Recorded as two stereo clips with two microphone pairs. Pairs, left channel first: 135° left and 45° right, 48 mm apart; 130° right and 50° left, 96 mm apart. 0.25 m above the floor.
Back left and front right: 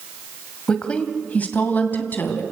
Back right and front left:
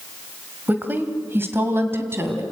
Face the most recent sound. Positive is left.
turn(degrees=110)